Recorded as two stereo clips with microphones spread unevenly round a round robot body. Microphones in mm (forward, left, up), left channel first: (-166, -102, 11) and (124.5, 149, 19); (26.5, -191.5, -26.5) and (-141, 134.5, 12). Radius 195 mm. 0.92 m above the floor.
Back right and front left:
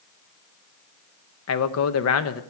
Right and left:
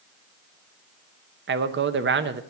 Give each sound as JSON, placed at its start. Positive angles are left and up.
{"t": 1.5, "sound": "a man speaking", "azimuth_deg": 175, "distance_m": 0.8}